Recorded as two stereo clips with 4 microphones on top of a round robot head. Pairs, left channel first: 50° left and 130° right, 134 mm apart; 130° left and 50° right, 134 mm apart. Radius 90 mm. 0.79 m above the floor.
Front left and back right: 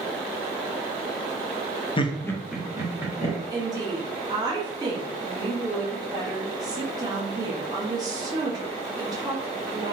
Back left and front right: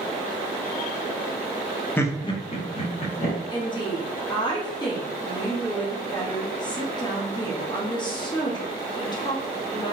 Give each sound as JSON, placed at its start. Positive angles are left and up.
{"t": 2.0, "sound": "laughter", "azimuth_deg": 65, "distance_m": 0.6}
{"t": 3.5, "sound": "a woman speaking", "azimuth_deg": 175, "distance_m": 0.9}